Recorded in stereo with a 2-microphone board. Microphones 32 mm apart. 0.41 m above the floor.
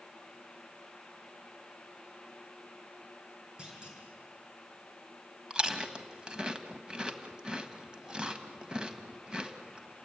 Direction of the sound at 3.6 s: 25° right (ahead or behind).